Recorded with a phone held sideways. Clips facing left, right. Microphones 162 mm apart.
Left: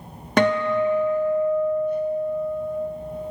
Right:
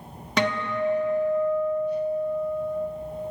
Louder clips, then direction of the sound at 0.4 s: Left 6 dB; 50° left (ahead or behind).